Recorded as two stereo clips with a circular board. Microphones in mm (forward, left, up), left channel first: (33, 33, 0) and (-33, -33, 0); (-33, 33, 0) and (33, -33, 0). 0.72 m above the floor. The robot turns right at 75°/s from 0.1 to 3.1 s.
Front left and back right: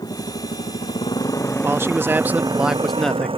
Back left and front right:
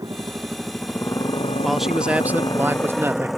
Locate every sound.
0.0 s a motorcycle: 5° left; by 3.4 s 130° right
1.6 s a man speaking: 140° right; by 3.3 s 30° right